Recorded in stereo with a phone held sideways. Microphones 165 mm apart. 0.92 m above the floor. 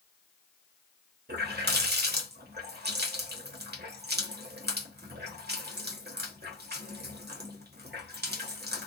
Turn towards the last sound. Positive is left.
turn(degrees=-85)